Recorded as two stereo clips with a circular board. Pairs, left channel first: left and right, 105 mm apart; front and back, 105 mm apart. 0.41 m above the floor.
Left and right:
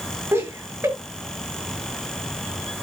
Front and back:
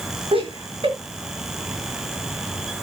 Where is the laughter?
155° right, 7 m.